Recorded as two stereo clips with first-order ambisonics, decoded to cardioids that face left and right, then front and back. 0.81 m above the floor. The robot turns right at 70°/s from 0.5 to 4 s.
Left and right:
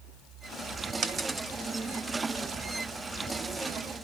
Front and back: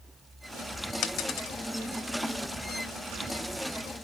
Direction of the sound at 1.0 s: 40° right.